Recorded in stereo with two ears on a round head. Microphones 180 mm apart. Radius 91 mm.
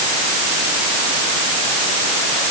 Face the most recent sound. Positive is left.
No sound to turn to.